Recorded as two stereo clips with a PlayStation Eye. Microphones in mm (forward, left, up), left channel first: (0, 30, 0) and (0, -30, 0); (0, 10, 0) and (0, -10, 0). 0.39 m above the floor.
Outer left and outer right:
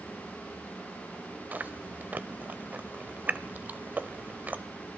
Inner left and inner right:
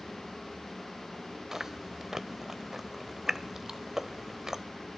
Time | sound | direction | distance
1.5 | chewing | 30° right (ahead or behind) | 0.5 m